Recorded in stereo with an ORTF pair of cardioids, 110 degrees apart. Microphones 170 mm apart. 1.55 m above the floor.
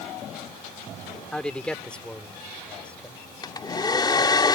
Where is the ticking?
No ticking in this recording.